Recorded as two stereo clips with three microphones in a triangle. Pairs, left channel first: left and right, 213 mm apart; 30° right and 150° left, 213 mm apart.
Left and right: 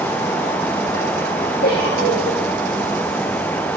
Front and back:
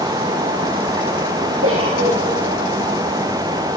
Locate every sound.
1.6 s a giggle: 135° left, 9 m